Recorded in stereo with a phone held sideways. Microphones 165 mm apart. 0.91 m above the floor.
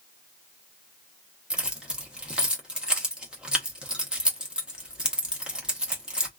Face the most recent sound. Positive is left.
turn(degrees=-5)  # may be behind; listen again after turning